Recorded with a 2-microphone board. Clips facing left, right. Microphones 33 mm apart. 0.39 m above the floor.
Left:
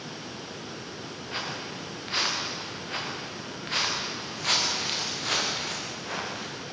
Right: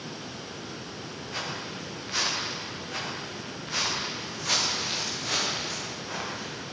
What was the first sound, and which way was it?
Footsteps, 40° left (ahead or behind).